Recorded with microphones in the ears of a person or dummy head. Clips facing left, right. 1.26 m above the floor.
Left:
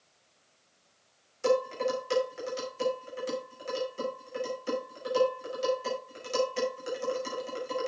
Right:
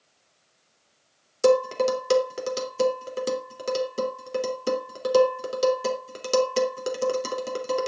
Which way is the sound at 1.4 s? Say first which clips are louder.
Right 7 dB; 75° right (ahead or behind).